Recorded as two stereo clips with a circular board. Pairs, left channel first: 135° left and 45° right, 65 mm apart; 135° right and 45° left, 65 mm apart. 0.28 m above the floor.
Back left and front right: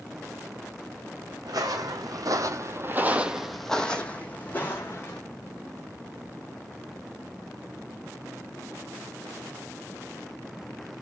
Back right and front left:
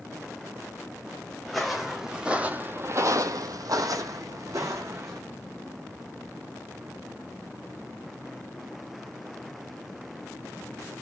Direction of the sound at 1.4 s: 50° right.